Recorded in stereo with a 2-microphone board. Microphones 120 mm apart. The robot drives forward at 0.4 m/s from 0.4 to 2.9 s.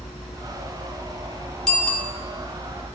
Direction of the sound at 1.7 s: 5° left (ahead or behind).